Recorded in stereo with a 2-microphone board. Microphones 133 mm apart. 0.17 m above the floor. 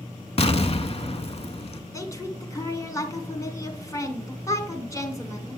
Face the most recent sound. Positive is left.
turn(degrees=25)  # may be behind; listen again after turning